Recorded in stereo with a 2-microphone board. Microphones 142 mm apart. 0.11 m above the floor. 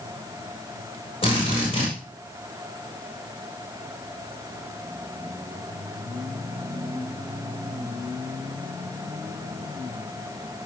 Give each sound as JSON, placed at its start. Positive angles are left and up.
{"t": 1.2, "sound": "a drill", "side_deg": 40, "distance_m": 7.5}